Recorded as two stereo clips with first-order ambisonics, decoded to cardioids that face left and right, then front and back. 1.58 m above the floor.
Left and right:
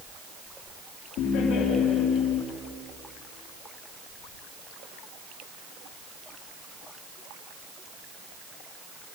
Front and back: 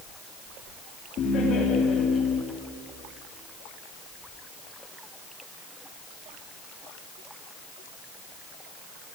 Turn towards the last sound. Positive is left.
turn(degrees=55)